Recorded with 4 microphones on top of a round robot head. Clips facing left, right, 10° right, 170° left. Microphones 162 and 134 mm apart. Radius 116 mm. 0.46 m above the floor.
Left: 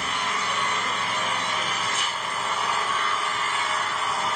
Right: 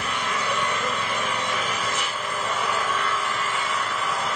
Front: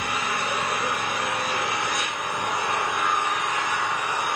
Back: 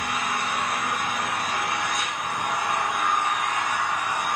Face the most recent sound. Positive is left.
turn(degrees=-35)